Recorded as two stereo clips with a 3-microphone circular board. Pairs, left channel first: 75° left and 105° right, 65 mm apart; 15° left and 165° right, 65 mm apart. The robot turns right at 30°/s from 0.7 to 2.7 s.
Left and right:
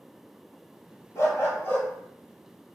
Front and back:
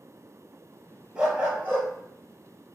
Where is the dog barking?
115° left, 1.5 m; by 1.9 s 140° left, 1.5 m.